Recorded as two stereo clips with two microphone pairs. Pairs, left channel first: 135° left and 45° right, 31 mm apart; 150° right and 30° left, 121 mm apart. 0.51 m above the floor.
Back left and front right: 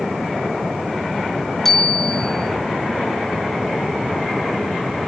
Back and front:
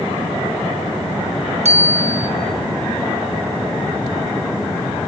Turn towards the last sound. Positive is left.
turn(degrees=55)